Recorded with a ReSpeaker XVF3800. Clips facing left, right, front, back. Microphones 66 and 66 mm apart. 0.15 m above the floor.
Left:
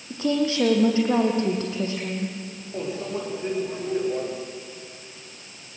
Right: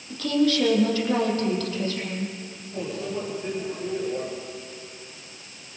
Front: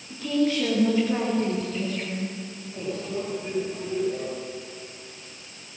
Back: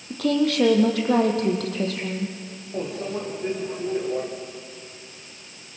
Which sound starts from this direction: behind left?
A microwave, at 2.7 s.